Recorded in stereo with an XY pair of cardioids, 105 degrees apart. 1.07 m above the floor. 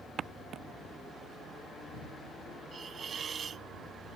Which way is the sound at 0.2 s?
50° right.